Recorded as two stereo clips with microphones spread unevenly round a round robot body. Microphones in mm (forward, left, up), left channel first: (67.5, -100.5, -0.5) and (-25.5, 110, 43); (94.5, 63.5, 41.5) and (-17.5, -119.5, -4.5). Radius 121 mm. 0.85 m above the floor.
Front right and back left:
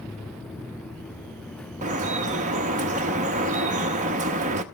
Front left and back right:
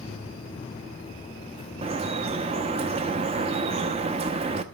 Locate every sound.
1.8 s dripping: 175° left, 0.7 m